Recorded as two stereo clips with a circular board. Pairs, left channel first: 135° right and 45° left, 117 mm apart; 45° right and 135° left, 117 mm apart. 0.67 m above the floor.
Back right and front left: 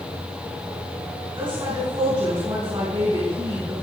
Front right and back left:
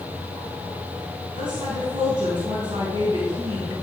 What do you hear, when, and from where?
1.4 s a woman speaking: 85° left, 4.5 m